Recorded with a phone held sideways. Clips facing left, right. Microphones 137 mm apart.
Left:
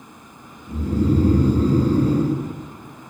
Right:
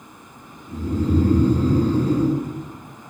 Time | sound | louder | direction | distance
0.7 | snoring | left 2 dB | 35° left (ahead or behind) | 0.9 m